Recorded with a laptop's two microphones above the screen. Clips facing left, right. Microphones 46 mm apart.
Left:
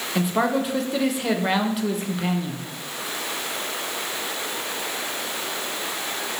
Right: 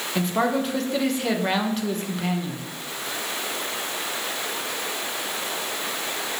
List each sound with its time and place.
0.1 s a man speaking: 5° left (ahead or behind), 0.6 m